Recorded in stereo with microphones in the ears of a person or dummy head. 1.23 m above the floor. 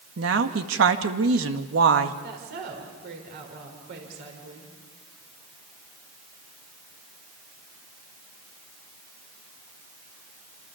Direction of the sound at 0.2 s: 70° right (ahead or behind).